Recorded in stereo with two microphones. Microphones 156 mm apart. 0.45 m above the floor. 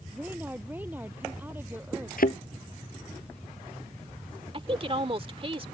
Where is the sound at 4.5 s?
35° right (ahead or behind).